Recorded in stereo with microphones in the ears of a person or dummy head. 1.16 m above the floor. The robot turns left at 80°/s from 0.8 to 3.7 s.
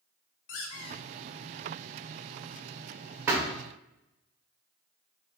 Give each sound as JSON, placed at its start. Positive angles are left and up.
{"t": 0.5, "sound": "a squeak", "side_deg": 35, "distance_m": 0.9}
{"t": 3.3, "sound": "a thud", "side_deg": -10, "distance_m": 0.9}